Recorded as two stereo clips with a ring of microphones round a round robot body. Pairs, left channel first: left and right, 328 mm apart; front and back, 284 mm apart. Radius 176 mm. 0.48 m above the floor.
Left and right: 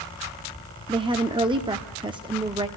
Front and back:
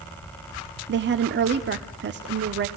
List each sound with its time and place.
0.9 s a woman speaking: 160° right, 1.0 m